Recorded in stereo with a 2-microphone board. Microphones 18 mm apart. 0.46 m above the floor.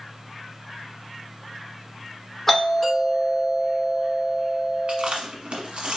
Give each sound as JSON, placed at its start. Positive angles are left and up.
{"t": 2.5, "sound": "a doorbell", "side_deg": 15, "distance_m": 1.9}
{"t": 4.9, "sound": "chewing", "side_deg": -65, "distance_m": 1.1}